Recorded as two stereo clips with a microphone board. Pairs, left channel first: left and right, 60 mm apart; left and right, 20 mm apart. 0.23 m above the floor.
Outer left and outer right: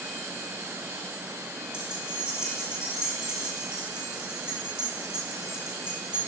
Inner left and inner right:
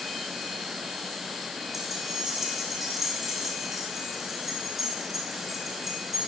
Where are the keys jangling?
15° right (ahead or behind), 6 m.